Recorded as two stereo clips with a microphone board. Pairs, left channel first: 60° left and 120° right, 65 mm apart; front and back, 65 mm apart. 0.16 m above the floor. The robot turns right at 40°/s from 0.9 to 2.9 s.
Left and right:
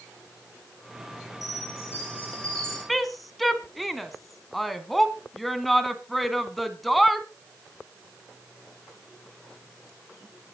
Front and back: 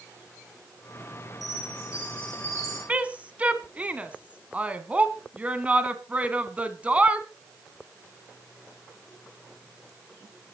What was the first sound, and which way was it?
A chime, 90° left.